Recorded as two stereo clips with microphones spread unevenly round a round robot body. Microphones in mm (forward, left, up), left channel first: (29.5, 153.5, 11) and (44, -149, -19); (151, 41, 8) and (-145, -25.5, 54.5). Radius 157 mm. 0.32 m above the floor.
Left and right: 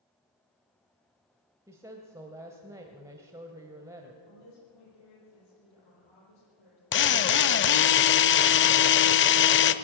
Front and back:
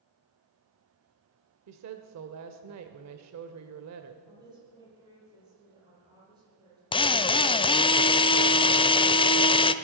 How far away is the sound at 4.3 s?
About 9.5 m.